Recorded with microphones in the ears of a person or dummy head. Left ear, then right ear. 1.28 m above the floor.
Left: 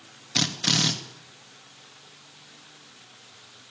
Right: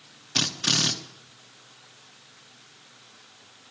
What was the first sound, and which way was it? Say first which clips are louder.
A drill: even; centre (ahead or behind).